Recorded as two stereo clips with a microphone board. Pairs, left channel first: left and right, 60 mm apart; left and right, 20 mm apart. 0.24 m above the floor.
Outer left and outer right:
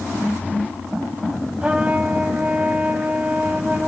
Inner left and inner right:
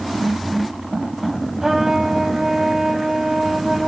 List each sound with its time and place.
1.6 s a trumpet: 20° right (ahead or behind), 1.2 m